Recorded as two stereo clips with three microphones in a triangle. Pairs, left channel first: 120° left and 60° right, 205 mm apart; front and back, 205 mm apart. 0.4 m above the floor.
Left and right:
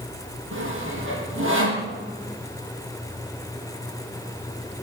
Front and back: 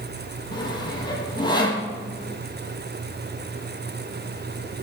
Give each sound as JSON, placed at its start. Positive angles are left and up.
{"t": 0.5, "sound": "sawing", "azimuth_deg": -70, "distance_m": 4.5}